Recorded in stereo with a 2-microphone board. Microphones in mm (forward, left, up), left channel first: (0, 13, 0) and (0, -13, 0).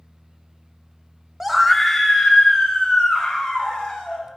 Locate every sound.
1.4 s a scream: 15° right (ahead or behind), 0.7 m; by 4.3 s 25° left (ahead or behind), 4 m